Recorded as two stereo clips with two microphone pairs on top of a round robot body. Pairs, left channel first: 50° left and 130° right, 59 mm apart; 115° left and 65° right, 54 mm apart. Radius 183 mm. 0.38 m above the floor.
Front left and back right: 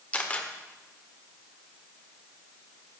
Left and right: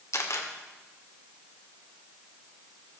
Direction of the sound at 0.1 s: 110° left.